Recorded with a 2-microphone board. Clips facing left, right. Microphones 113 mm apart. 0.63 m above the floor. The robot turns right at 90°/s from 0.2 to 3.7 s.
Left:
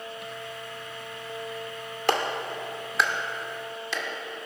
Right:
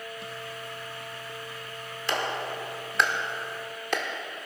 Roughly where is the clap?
Left.